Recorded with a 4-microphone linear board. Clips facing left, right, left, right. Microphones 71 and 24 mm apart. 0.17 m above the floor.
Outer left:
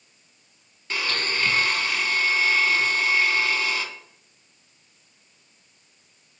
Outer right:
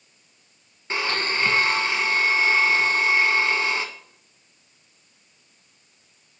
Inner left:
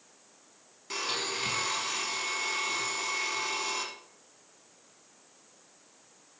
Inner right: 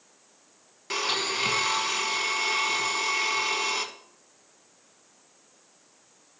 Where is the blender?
25° right (ahead or behind), 0.9 m.